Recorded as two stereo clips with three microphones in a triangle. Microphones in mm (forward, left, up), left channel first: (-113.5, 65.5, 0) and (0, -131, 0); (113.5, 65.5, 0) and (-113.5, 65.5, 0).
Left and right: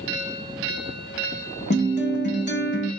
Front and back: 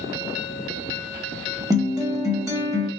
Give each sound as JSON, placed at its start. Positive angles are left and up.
{"t": 1.7, "sound": "a guitar", "azimuth_deg": 110, "distance_m": 0.9}